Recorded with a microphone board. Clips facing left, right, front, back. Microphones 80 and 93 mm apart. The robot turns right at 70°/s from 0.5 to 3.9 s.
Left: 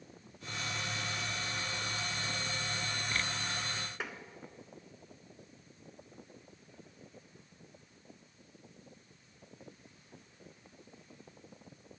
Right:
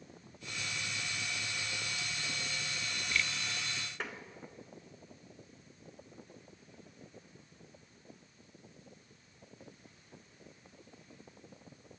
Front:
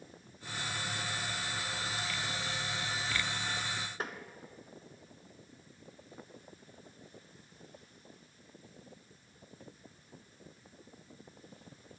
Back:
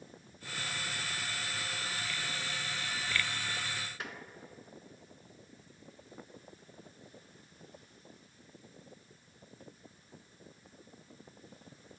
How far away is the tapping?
About 0.7 m.